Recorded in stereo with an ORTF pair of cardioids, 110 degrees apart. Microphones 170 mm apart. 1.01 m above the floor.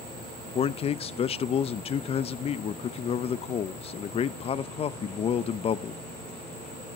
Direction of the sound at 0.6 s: 35° left.